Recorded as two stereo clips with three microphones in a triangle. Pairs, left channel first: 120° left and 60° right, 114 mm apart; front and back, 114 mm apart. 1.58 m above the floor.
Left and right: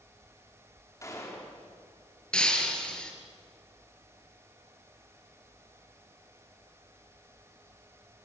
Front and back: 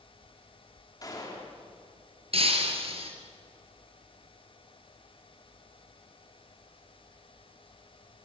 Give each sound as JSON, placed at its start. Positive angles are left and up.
{"t": 1.0, "sound": "a gunshot", "azimuth_deg": 60, "distance_m": 4.5}
{"t": 2.3, "sound": "breaking glass", "azimuth_deg": -160, "distance_m": 3.5}